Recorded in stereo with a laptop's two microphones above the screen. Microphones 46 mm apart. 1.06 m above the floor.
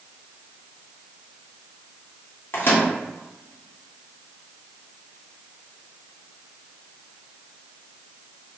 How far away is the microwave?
About 1.7 m.